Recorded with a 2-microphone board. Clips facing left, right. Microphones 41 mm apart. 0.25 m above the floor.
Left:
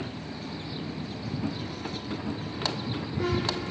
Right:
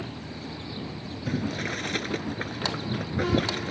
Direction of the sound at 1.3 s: 65° right (ahead or behind).